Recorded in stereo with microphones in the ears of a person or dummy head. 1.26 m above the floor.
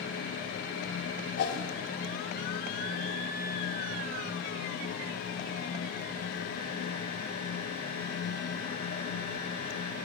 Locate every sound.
1.4 s a whoosh: 65° left (ahead or behind), 1.8 m